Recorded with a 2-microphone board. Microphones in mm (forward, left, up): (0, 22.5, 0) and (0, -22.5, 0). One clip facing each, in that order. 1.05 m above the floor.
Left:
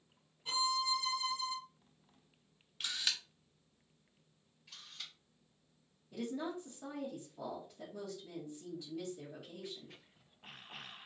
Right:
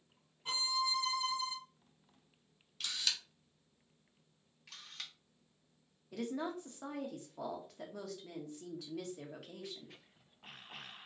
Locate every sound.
0.5 s a violin: 45° right (ahead or behind), 1.5 m
2.8 s a camera shutter: 20° left (ahead or behind), 0.8 m
4.7 s a camera shutter: 70° right (ahead or behind), 0.9 m
6.1 s a woman speaking: 65° right (ahead or behind), 1.0 m